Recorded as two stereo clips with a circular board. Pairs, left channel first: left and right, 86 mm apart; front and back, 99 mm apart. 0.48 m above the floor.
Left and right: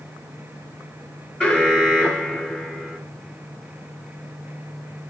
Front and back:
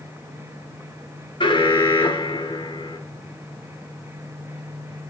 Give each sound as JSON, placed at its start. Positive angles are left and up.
{"t": 1.4, "sound": "an alarm", "azimuth_deg": 15, "distance_m": 2.5}